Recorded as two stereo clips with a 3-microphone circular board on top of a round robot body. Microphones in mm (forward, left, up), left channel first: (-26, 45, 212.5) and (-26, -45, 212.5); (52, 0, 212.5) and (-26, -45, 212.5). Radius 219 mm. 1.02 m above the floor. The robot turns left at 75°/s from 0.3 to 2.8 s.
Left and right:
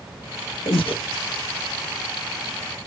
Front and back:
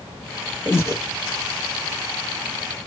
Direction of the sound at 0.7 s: 105° left.